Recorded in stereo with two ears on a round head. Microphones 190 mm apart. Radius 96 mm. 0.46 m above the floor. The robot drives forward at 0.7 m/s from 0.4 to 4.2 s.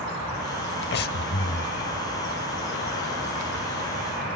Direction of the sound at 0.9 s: 55° left (ahead or behind).